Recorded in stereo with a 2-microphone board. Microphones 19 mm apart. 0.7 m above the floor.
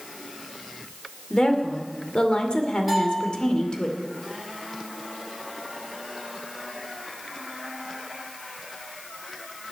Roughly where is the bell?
Centre.